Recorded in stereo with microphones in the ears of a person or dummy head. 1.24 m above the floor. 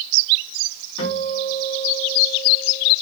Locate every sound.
1.0 s a guitar: 85° left, 3 m